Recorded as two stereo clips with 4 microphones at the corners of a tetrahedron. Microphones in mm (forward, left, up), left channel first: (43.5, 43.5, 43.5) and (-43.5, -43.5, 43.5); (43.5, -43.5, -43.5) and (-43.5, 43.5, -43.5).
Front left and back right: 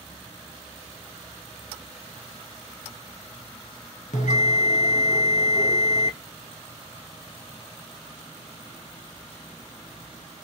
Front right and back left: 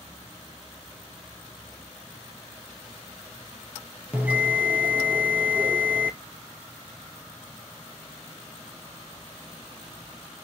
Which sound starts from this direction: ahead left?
A bell, at 4.1 s.